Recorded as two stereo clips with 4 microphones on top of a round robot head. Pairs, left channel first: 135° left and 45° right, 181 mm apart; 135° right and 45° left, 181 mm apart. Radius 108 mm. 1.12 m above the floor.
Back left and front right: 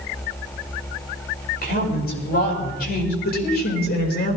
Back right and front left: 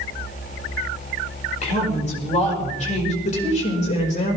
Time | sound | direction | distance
1.6 | a woman speaking | 175° left | 5 m
3.2 | a woman speaking | 175° left | 5 m